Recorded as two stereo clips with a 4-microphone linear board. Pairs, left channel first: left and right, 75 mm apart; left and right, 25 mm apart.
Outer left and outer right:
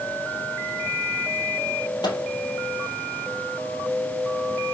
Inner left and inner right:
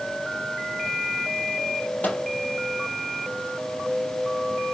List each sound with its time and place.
2.0 s a microwave: 70° left (ahead or behind), 2.5 m